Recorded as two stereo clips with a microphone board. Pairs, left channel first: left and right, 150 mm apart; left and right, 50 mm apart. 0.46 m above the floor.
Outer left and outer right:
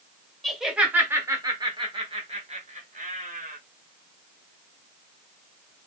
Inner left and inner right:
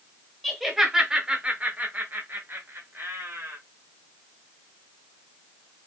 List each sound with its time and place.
0.4 s laughter: centre (ahead or behind), 1.2 m; by 3.6 s 60° right (ahead or behind), 1.5 m